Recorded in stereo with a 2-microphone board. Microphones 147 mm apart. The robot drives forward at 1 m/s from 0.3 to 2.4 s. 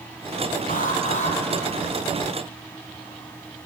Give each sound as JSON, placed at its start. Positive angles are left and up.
{"t": 0.7, "sound": "an alarm", "side_deg": 65, "distance_m": 2.5}